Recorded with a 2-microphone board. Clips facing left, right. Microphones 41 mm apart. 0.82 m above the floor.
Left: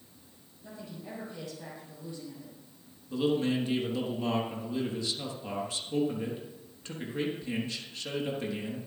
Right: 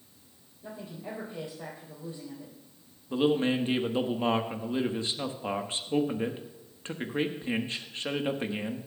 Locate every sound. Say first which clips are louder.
0.6 s a woman speaking: right 3 dB; 40° right (ahead or behind), 4 m
3.1 s a man speaking: right 2 dB; 40° right (ahead or behind), 1.3 m